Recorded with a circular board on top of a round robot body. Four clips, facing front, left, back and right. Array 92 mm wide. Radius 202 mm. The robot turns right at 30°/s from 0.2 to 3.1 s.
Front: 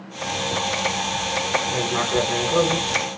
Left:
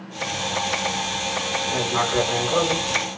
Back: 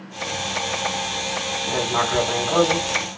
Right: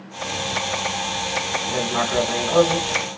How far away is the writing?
About 1.1 m.